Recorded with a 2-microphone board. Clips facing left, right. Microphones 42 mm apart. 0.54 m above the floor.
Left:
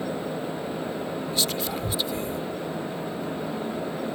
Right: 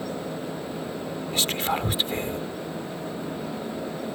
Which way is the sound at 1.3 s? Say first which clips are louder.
Right 5 dB; 50° right (ahead or behind).